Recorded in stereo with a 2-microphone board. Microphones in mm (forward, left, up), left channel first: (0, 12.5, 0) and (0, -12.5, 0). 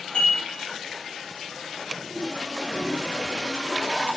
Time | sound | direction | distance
0.1 | dishes clattering | 75° left (ahead or behind) | 3.5 m